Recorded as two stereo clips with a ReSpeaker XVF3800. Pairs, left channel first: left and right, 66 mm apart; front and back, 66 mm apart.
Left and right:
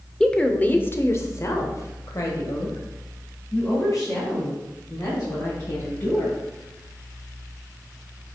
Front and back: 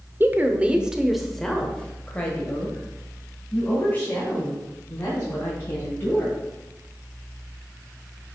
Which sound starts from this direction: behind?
A woman speaking, at 0.2 s.